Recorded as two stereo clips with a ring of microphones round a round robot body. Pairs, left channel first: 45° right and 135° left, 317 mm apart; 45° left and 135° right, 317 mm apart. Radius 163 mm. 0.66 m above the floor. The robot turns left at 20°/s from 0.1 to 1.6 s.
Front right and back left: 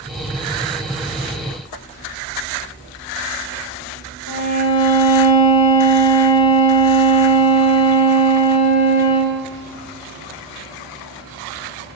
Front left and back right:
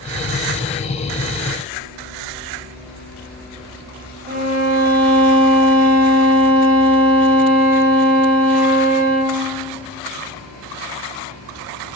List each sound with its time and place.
4.3 s a violin: 75° right, 1.6 m